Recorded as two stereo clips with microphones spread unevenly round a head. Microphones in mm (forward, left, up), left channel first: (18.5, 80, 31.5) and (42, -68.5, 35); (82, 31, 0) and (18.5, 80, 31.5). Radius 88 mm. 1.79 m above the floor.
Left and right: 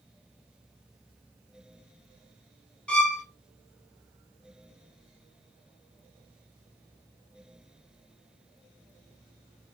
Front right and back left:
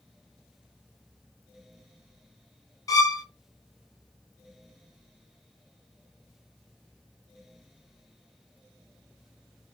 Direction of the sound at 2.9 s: 15° left.